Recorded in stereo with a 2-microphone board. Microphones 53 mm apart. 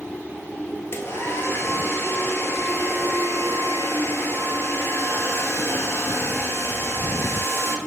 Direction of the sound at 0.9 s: 50° left (ahead or behind).